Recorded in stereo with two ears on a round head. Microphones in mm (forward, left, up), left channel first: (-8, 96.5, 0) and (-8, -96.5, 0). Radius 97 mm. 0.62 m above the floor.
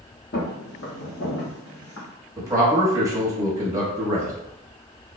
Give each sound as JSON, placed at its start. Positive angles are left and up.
{"t": 0.3, "sound": "footsteps", "side_deg": 50, "distance_m": 1.0}
{"t": 2.4, "sound": "a man speaking", "side_deg": -15, "distance_m": 1.0}